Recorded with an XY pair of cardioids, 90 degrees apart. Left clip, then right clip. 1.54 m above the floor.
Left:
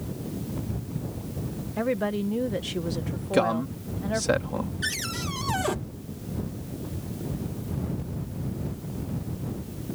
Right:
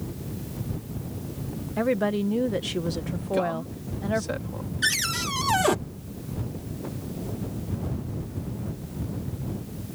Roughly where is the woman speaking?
Ahead.